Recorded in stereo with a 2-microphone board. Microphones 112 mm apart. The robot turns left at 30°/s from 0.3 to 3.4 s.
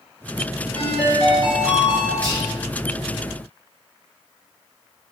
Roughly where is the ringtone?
Behind right.